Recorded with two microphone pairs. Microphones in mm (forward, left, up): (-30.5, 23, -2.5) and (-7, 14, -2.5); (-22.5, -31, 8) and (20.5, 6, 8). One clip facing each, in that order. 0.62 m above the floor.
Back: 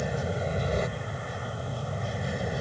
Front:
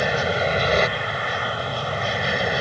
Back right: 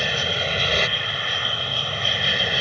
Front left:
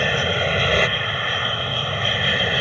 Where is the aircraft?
25° right; by 2.6 s 35° right.